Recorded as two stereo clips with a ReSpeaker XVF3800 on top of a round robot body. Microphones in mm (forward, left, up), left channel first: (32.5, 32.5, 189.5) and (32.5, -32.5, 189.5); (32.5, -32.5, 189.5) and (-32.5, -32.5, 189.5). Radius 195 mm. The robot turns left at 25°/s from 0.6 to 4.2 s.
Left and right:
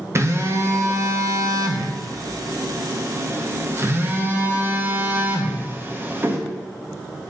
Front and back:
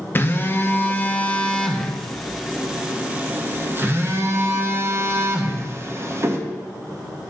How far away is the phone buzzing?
About 1.0 m.